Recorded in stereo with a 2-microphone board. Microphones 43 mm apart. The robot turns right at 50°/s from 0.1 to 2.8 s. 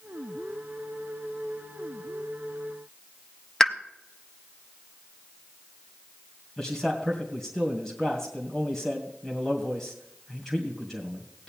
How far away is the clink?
I don't hear a clink.